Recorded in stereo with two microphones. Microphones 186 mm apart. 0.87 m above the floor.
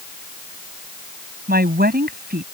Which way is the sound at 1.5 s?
60° right (ahead or behind).